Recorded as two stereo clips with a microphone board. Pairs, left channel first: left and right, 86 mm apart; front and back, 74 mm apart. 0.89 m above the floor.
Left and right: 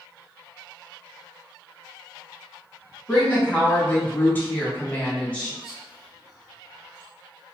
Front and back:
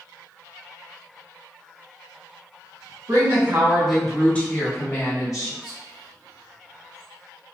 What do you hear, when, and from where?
3.1 s a woman speaking: 160° left, 1.0 m; by 5.5 s 20° left, 1.4 m
5.6 s whispering: 10° right, 1.9 m